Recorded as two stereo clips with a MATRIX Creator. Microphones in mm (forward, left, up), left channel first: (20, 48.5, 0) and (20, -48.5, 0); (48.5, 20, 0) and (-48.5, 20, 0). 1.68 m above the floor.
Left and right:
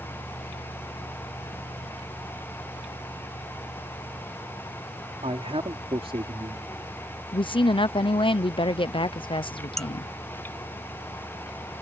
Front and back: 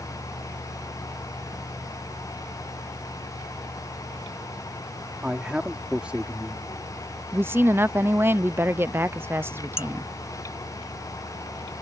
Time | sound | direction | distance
5.2 | a man speaking | 100° right | ?
7.3 | a woman speaking | 115° left | ?
9.8 | dishes clattering | 5° left | ?